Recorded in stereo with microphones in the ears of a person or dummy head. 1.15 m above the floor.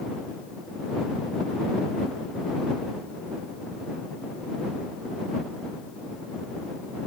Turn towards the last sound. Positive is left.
No sound to turn to.